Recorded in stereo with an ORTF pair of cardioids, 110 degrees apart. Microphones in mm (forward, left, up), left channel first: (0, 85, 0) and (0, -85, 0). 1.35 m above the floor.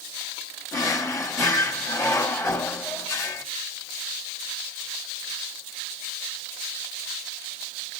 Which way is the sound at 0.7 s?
15° left.